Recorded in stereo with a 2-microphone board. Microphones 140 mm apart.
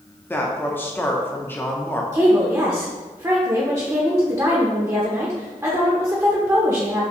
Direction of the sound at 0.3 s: 15° left (ahead or behind).